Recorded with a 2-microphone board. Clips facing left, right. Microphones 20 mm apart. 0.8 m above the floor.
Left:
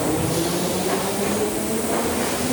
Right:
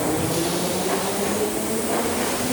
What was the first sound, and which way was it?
Only background noise.